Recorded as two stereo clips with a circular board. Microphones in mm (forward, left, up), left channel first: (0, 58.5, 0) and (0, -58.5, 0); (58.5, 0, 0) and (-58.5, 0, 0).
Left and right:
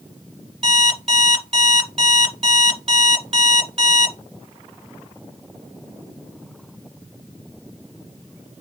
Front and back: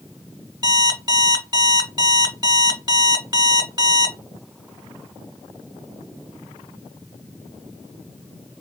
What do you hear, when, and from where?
0.6 s an alarm clock: 120° right, 1.2 m